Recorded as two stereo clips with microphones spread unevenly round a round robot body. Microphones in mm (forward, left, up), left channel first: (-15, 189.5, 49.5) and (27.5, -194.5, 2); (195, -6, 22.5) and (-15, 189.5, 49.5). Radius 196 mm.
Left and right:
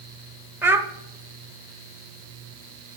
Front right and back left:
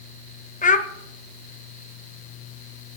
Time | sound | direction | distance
0.6 | a child speaking | 15° right | 1.1 m